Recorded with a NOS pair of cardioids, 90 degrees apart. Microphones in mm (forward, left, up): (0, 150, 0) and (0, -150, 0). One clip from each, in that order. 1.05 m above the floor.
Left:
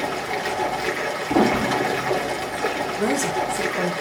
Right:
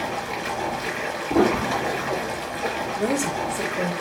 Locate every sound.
0.0 s running water: 40° left, 4 m
1.3 s a piano: 10° left, 0.7 m
3.0 s a woman speaking: 20° left, 4 m